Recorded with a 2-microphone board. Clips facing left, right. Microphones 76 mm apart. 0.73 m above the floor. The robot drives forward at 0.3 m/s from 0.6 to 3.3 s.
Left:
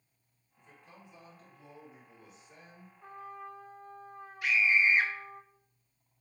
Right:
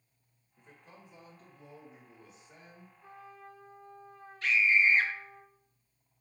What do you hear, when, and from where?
0.6 s a man speaking: 45° right (ahead or behind), 1.2 m; by 2.9 s 30° right (ahead or behind), 1.6 m
3.0 s a trumpet: 50° left (ahead or behind), 0.6 m
4.4 s a scream: 10° left (ahead or behind), 0.6 m